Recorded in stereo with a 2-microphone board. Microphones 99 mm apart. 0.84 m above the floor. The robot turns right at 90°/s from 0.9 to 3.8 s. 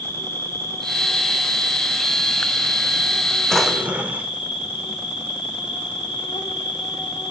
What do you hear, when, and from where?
0.0 s an insect: 155° left, 1.0 m; by 7.3 s 55° left, 1.0 m
3.5 s a drawer: 5° left (ahead or behind), 0.6 m; by 4.3 s 15° right (ahead or behind), 0.6 m